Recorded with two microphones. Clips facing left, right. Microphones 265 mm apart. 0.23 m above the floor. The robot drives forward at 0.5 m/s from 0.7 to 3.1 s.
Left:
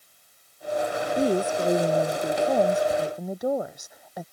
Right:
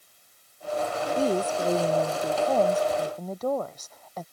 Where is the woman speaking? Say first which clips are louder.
Left 2 dB; 15° left (ahead or behind).